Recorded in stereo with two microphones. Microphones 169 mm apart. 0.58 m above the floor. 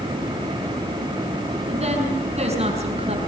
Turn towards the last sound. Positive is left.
turn(degrees=-40)  # may be behind; listen again after turning